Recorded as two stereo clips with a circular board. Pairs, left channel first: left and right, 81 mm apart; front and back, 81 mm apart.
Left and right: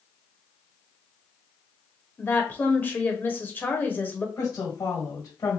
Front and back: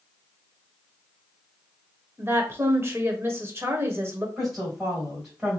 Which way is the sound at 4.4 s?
100° left.